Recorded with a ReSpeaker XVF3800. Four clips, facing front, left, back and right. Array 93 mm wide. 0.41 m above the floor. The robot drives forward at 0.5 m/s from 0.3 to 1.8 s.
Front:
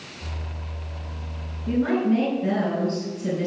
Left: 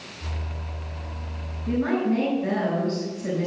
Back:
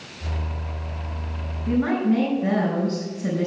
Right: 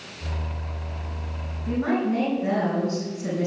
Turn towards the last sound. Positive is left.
turn(degrees=-160)